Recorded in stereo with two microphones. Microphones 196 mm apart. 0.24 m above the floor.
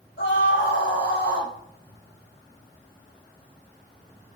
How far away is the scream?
About 5.5 m.